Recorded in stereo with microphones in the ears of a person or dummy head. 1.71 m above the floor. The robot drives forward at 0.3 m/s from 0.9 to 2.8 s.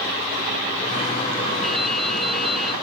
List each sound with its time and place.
1.6 s dripping: 5° right (ahead or behind), 2.5 m